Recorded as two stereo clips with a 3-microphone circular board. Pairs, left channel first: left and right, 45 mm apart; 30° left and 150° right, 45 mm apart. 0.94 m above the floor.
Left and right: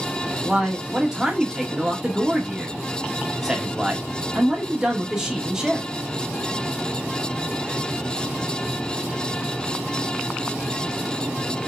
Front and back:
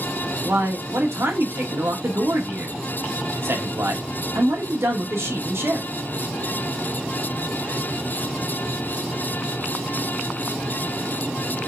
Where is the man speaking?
165° right, 1.8 m.